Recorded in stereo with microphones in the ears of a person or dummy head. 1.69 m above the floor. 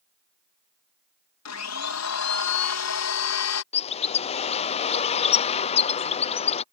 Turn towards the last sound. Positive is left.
turn(degrees=30)  # may be behind; listen again after turning